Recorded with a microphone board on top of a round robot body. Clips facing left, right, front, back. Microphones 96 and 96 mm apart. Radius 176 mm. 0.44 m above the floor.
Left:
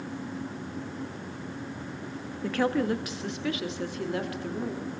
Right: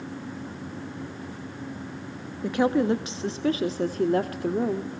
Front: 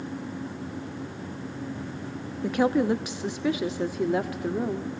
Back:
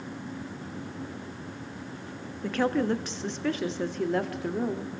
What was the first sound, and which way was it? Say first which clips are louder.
A woman speaking: right 4 dB, front 3 dB; 45° right.